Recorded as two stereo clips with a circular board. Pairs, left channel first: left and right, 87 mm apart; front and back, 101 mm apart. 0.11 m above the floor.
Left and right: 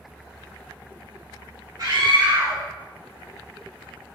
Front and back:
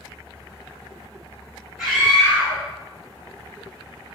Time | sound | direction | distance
1.8 | a scream | 110° right | 1.4 m